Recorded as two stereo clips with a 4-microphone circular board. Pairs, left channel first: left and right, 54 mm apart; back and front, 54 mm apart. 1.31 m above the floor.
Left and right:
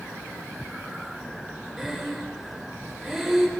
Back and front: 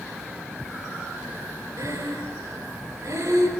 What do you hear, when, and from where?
1.8 s breathing: 5° right, 4.5 m